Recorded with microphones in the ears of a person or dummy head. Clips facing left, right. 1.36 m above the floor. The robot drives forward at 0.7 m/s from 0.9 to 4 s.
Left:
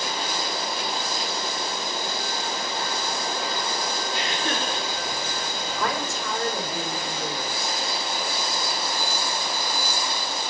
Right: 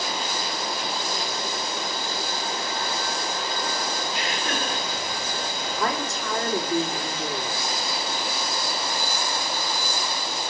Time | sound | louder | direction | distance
4.1 | laughter | left 1 dB | centre (ahead or behind) | 4 m
5.8 | a woman speaking | right 1 dB | 35° right (ahead or behind) | 5 m